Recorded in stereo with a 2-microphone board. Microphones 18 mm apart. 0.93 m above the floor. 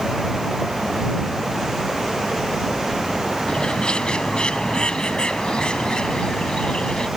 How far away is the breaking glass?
No breaking glass in this recording.